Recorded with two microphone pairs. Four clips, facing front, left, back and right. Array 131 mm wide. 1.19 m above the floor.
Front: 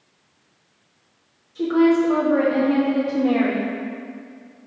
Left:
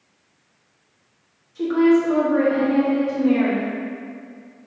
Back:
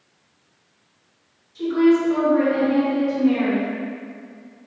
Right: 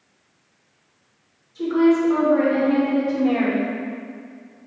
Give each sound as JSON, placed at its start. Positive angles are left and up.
{"t": 1.6, "sound": "a woman speaking", "azimuth_deg": 30, "distance_m": 1.8}